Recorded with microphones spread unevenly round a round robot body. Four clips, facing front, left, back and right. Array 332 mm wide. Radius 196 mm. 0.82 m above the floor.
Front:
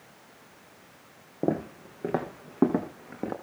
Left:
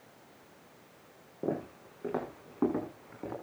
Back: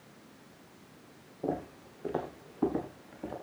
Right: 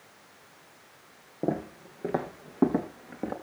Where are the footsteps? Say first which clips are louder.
Right 4 dB, front 6 dB; 25° right, 4 m; by 3.3 s 35° right, 5 m.